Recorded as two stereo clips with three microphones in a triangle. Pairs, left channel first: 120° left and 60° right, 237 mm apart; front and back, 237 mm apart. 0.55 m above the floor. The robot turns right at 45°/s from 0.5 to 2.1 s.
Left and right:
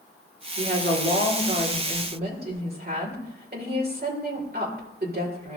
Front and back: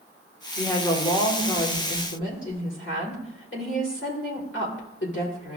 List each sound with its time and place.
0.6 s a woman speaking: 90° right, 2 m; by 5.6 s 20° right, 2 m